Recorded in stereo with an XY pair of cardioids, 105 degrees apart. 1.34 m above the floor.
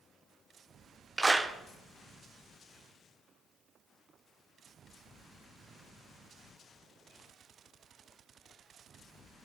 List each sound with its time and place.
1.2 s a clap: 15° right, 0.6 m